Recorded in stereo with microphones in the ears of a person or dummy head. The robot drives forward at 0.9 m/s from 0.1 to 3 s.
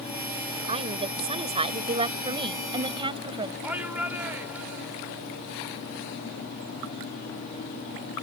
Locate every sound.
0.7 s a woman speaking: 25° right (ahead or behind); by 3.5 s 20° right (ahead or behind)
3.6 s a shout: 10° right (ahead or behind)